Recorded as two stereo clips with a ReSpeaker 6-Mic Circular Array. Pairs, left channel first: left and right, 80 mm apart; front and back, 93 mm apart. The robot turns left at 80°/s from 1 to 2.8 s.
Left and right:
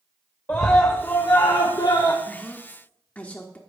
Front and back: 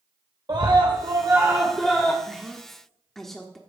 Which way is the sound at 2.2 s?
120° left.